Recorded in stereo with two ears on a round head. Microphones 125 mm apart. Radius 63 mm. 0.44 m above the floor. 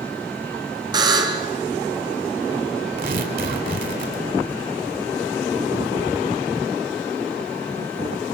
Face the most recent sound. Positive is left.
turn(degrees=-65)  # may be behind; listen again after turning